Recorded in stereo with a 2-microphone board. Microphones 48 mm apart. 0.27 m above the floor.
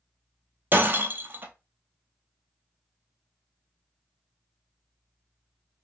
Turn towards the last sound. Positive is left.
turn(degrees=-40)  # may be behind; listen again after turning